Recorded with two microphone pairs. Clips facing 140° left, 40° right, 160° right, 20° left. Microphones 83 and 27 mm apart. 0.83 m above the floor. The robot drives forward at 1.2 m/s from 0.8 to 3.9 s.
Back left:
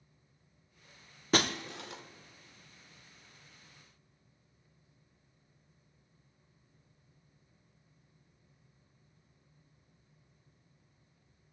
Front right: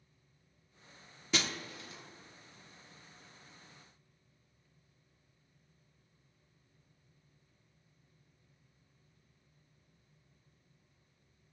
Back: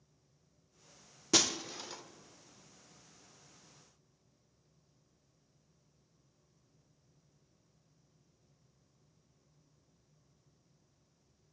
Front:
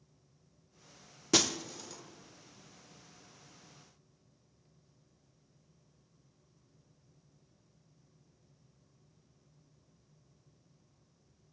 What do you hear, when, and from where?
1.3 s breaking glass: 105° left, 0.5 m; by 2.0 s 155° left, 1.1 m